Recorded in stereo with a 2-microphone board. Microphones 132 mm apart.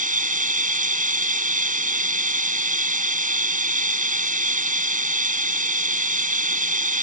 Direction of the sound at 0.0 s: 85° right.